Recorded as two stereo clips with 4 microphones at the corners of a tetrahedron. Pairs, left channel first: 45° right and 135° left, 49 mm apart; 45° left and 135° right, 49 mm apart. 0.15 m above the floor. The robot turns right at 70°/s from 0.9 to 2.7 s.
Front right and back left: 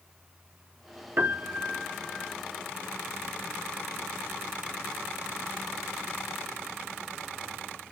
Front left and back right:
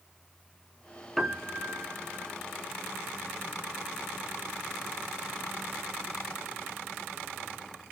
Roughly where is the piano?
Behind left.